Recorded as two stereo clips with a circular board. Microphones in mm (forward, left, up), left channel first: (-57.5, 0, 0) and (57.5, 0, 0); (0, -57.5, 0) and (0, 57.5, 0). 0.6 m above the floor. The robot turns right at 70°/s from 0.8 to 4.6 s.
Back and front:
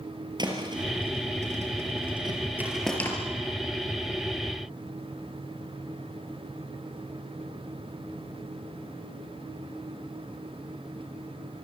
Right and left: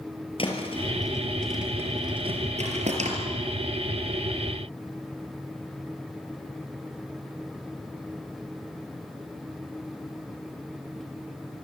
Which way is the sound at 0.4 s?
50° right.